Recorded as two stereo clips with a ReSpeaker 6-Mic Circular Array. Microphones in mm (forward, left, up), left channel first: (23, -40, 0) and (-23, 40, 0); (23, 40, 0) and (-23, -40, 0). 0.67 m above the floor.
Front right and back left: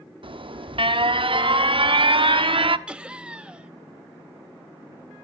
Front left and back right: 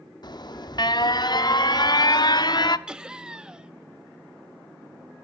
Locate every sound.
0.2 s an alarm: 100° left, 0.6 m
2.9 s laughter: straight behind, 0.6 m